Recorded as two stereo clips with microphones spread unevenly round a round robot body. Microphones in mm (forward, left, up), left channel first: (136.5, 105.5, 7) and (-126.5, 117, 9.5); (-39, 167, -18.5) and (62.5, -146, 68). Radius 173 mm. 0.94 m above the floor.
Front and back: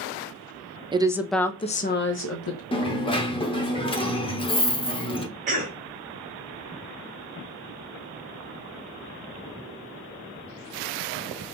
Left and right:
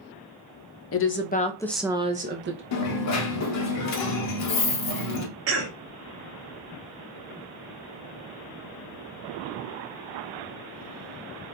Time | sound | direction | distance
0.9 | a woman speaking | 105° left | 0.7 m
2.7 | a dropped coin | 65° left | 0.7 m
5.5 | a cough | 125° right | 0.6 m